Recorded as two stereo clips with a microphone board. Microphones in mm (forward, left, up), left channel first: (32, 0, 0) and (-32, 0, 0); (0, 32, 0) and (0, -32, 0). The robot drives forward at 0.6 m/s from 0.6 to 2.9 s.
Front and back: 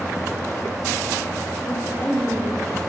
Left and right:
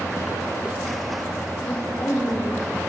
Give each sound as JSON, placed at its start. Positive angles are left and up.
{"t": 1.6, "sound": "a woman speaking", "azimuth_deg": 50, "distance_m": 3.0}